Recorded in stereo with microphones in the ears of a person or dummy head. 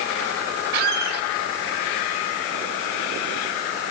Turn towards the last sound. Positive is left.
turn(degrees=-55)  # may be behind; listen again after turning